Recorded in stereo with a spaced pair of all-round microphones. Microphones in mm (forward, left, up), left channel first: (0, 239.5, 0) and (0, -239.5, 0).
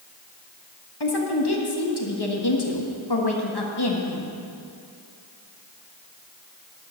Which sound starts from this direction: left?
A woman speaking, at 1.0 s.